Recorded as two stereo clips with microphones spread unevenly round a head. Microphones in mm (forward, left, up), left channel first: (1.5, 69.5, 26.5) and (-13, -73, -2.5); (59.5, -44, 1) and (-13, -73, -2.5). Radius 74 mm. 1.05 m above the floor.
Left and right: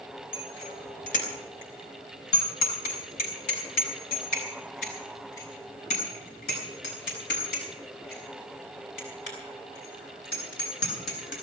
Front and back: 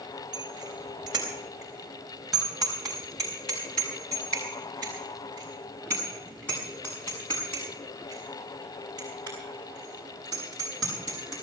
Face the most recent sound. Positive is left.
turn(degrees=95)